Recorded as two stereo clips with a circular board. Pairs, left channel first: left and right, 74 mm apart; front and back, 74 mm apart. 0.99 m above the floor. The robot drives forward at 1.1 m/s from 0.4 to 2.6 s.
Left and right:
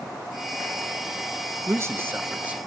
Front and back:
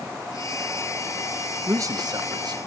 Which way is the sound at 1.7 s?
130° right.